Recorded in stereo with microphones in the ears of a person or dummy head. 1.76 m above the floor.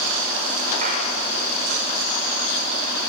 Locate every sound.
0.8 s a clap: 40° right (ahead or behind), 6 m